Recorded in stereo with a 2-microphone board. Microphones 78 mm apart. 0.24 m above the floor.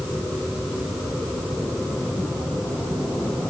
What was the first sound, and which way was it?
Only background noise.